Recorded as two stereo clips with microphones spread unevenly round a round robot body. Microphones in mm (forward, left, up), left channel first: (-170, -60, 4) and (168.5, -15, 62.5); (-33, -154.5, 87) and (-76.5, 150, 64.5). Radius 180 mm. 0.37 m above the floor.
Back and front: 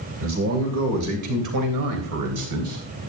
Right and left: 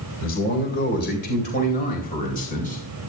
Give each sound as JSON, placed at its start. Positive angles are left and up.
{"t": 0.2, "sound": "a man speaking", "azimuth_deg": -45, "distance_m": 2.0}